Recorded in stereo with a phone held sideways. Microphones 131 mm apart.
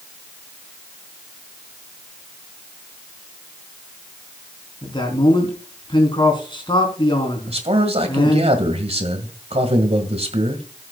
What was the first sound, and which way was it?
A man speaking, 40° left (ahead or behind).